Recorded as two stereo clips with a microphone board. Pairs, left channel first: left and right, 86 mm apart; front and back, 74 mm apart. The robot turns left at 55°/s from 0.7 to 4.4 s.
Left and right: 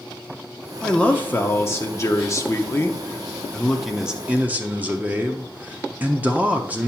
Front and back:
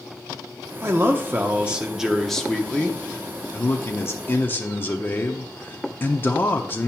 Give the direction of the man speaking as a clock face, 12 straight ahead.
7 o'clock.